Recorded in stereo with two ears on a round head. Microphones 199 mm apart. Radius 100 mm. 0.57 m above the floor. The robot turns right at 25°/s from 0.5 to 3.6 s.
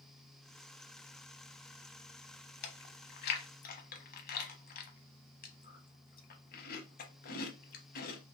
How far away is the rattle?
No rattle in this recording.